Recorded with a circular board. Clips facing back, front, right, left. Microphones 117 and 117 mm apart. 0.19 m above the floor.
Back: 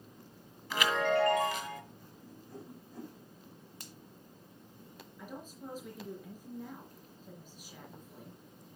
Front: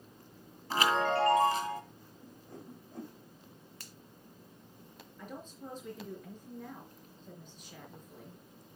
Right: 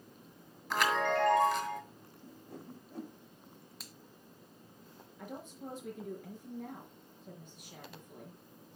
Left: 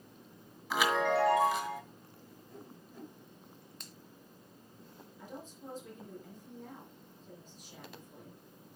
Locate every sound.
0.7 s a chime: 5° left, 1.9 m
2.2 s a whoosh: 65° right, 8 m
3.8 s a finger snap: 170° right, 1.1 m
5.2 s a woman speaking: 95° right, 4 m